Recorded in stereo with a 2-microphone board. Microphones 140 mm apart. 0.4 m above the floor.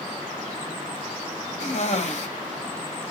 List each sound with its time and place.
1.6 s a cough: 55° left (ahead or behind), 2.5 m